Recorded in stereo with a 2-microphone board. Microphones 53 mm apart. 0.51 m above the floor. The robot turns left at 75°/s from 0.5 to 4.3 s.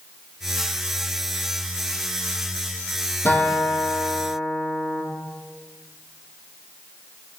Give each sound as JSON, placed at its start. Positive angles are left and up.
{"t": 3.2, "sound": "a guitar", "azimuth_deg": 40, "distance_m": 5.5}